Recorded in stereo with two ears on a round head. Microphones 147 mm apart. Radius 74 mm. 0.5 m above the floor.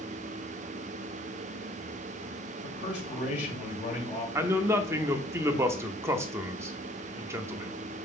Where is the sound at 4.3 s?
15° right (ahead or behind), 0.7 m.